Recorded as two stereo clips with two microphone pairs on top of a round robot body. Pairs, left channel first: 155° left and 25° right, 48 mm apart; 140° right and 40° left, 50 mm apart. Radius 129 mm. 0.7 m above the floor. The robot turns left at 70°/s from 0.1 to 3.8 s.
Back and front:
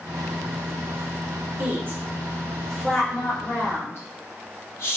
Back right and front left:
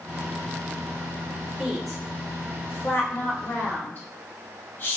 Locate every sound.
1.6 s a woman speaking: 30° right, 1.5 m; by 5.0 s 175° left, 1.5 m